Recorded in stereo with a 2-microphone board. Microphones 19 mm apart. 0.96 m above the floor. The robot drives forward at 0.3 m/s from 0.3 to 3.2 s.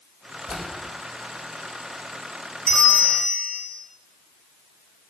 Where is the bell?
75° left (ahead or behind), 3.5 m.